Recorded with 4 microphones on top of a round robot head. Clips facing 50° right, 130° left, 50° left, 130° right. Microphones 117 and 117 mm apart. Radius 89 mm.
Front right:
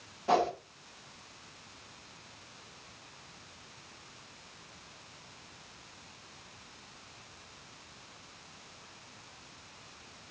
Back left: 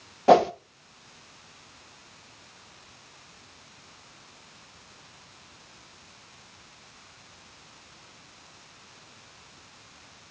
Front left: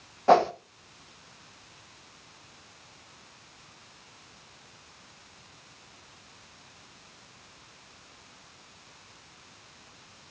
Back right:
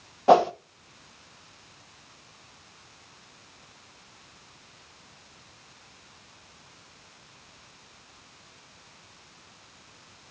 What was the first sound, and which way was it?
A whoosh, 155° left.